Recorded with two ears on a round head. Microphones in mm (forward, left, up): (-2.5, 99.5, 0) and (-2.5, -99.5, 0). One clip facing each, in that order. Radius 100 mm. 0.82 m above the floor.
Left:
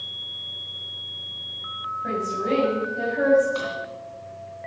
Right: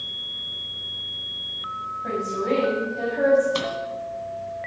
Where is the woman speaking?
5° left (ahead or behind), 6 m.